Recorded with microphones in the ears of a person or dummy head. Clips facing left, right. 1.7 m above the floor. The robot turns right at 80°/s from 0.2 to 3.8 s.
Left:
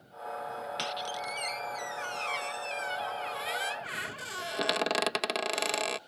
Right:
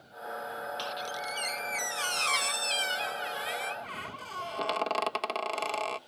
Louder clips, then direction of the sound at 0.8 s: Left 1 dB; 150° left.